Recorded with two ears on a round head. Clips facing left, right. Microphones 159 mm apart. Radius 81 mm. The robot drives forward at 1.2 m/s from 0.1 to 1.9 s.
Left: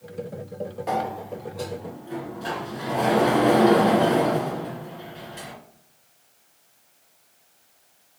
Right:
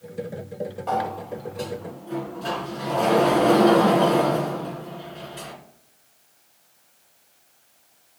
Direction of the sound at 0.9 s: 20° left (ahead or behind).